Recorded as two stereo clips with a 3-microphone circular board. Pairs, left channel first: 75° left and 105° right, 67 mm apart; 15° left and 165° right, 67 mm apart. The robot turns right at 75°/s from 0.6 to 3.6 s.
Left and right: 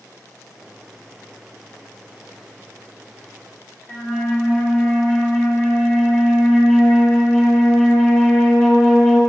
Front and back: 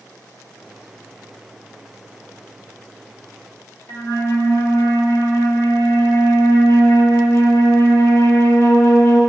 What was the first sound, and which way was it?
A flute, 15° left.